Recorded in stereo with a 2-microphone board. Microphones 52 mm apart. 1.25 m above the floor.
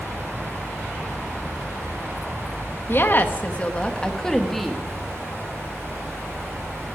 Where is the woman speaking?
50° left (ahead or behind), 1.4 m; by 4.8 s centre (ahead or behind), 1.7 m.